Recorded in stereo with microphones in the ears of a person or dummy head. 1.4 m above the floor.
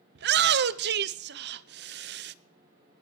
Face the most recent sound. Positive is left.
turn(degrees=-55)  # may be behind; listen again after turning